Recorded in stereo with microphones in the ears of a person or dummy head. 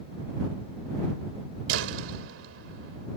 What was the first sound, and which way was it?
A door slam, 85° right.